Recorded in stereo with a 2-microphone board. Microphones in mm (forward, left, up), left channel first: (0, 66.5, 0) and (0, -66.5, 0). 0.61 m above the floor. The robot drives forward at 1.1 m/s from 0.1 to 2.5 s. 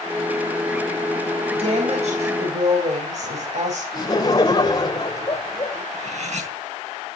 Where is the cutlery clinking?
60° right (ahead or behind), 4 m.